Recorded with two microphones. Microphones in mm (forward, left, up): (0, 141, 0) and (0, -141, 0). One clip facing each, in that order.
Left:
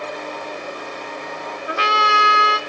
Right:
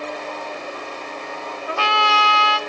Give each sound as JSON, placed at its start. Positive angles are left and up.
{"t": 1.7, "sound": "a trumpet", "side_deg": 20, "distance_m": 1.3}